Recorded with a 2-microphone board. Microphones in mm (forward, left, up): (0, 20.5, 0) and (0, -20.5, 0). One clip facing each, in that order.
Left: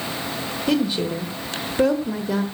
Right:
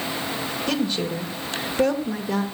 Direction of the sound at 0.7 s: 10° left (ahead or behind).